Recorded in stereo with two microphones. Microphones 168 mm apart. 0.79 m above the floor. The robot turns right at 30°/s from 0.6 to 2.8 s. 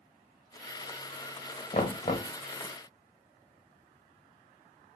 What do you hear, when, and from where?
1.7 s knocking: 45° left (ahead or behind), 0.7 m; by 2.3 s 40° left (ahead or behind), 0.7 m